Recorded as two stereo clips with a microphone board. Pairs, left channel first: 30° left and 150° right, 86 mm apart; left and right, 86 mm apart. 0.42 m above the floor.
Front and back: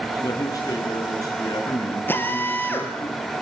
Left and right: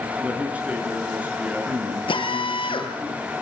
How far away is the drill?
About 3.5 m.